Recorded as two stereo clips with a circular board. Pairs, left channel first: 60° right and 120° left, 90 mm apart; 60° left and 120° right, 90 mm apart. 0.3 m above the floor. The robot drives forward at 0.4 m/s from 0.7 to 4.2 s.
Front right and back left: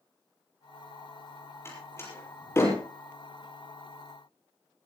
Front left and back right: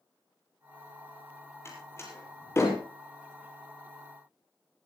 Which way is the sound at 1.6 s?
Straight ahead.